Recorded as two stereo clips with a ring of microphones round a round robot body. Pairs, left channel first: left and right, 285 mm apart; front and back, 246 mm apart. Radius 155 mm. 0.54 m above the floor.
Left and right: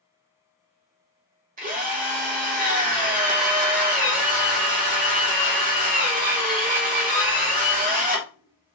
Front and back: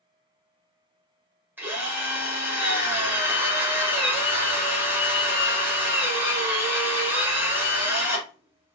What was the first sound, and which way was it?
A drill, 105° right.